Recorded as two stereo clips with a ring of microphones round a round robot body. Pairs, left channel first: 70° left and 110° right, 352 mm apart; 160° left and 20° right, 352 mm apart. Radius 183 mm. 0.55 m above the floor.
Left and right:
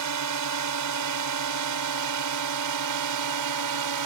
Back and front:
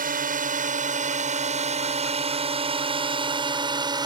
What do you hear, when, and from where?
0.0 s a drone: 85° right; by 4.1 s 100° right